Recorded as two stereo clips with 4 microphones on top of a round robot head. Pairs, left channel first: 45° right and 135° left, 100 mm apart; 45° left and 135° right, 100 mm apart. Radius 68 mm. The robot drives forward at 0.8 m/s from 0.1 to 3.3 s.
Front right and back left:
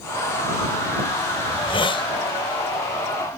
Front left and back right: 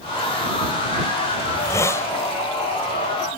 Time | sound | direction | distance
1.5 | a hiss | 10° right | ?